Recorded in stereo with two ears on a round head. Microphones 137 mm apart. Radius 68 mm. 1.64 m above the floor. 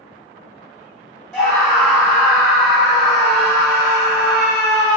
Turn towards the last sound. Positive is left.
turn(degrees=0)  # may be behind; listen again after turning